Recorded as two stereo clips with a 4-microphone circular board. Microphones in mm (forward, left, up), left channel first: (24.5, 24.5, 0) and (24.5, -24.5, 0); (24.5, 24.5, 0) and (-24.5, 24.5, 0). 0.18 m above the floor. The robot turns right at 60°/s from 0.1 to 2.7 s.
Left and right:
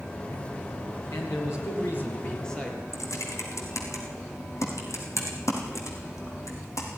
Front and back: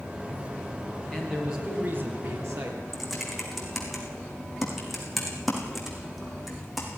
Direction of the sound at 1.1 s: 80° left.